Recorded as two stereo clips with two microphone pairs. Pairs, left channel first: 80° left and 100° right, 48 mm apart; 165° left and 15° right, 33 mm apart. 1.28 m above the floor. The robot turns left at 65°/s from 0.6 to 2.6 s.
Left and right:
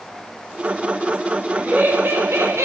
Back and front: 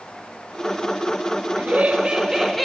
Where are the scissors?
I don't hear scissors.